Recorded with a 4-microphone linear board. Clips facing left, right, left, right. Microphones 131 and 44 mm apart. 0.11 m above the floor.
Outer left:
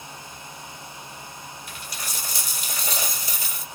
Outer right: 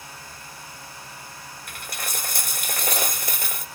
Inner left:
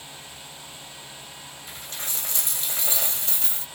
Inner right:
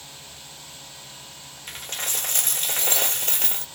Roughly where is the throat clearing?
I don't hear throat clearing.